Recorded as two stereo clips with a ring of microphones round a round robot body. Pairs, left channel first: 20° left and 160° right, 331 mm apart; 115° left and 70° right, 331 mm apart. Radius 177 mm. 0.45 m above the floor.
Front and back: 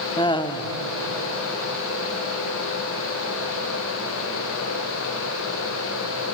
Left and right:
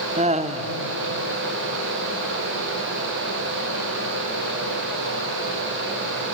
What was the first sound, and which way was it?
Laughter, 30° right.